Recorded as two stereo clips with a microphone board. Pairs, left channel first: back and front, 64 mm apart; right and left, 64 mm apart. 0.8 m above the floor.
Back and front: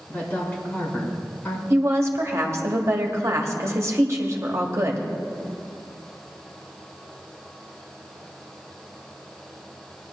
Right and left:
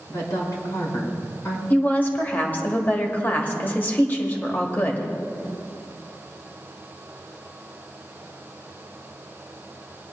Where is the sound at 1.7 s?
30° right, 1.4 m.